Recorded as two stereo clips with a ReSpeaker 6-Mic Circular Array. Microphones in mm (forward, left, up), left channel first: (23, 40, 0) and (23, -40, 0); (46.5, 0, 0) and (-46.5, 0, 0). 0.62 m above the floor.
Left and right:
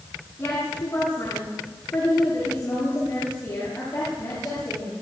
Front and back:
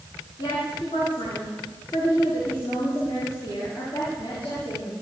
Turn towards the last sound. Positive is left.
turn(degrees=25)